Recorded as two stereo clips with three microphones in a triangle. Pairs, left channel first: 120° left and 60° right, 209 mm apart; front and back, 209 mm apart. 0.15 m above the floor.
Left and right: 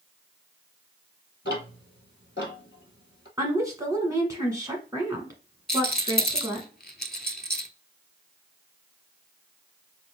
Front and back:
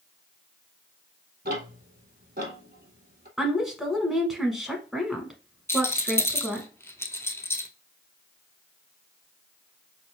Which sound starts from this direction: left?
A rattle, at 5.7 s.